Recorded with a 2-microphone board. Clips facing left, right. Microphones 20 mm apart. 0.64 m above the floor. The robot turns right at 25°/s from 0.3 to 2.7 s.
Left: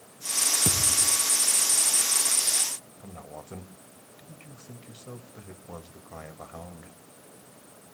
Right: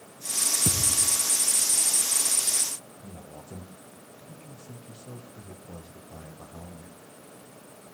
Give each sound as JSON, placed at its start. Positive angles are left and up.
{"t": 0.7, "sound": "a thud", "side_deg": 35, "distance_m": 3.0}
{"t": 3.0, "sound": "a man speaking", "side_deg": 80, "distance_m": 2.5}